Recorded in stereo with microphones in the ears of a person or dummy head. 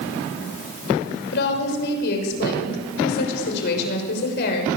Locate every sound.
1.3 s a woman speaking: 60° left (ahead or behind), 5.5 m